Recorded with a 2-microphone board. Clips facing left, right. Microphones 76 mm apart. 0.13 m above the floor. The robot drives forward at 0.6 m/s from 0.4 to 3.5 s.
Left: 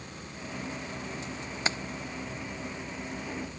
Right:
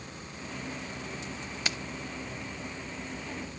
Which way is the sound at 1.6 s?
30° left (ahead or behind).